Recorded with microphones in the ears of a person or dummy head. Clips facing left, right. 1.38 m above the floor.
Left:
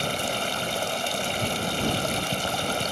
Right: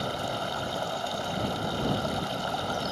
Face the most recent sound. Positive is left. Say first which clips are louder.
# left 3 dB
turn(degrees=30)  # may be behind; listen again after turning